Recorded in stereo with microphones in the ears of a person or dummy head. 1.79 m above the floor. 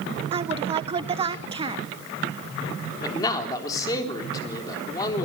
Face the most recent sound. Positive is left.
turn(degrees=25)  # may be behind; listen again after turning